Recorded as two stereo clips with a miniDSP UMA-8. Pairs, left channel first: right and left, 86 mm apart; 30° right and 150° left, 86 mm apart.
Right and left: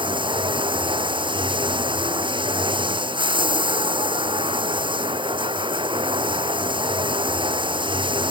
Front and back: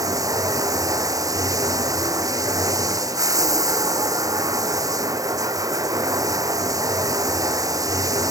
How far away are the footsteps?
I don't hear footsteps.